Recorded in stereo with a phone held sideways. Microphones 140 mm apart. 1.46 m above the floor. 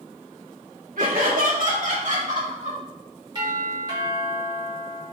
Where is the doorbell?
30° right (ahead or behind), 2.5 m.